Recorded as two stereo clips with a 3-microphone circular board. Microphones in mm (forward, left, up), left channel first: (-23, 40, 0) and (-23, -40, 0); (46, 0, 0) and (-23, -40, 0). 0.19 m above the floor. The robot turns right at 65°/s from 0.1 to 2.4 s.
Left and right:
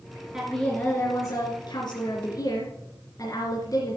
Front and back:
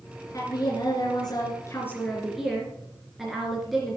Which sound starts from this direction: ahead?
A woman speaking, at 0.3 s.